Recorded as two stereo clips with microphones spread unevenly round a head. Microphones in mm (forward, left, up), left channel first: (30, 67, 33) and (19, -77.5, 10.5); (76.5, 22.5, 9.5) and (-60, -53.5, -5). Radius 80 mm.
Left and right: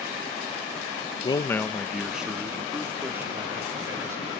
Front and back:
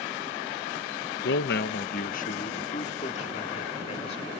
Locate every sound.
1.2 s a man speaking: 25° left; by 4.3 s 25° right